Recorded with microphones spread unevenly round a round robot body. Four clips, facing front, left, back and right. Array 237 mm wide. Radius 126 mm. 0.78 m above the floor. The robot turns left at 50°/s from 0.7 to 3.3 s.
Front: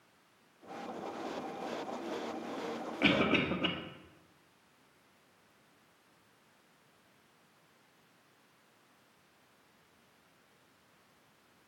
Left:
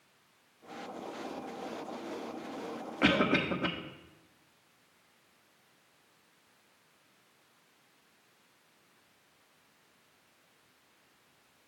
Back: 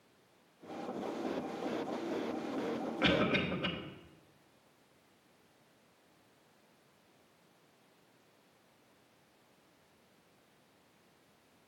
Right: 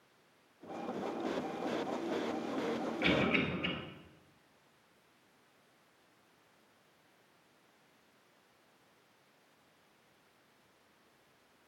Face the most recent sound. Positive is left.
turn(degrees=60)